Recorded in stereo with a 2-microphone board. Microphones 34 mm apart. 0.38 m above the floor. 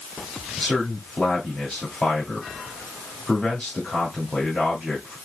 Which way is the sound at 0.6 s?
35° left (ahead or behind).